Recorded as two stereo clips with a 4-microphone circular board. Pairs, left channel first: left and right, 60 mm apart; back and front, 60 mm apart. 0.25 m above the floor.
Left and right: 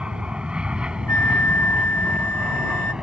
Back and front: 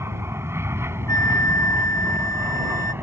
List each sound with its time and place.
0.0 s an aircraft: 20° right
1.1 s a flute: 145° left